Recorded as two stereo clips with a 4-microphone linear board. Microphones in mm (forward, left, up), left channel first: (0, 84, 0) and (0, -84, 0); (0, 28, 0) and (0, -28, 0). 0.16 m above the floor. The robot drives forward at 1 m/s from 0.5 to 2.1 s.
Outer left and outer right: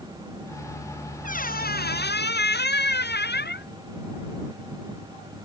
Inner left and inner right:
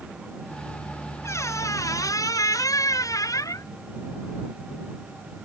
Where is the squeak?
55° left (ahead or behind); by 3.7 s 80° left.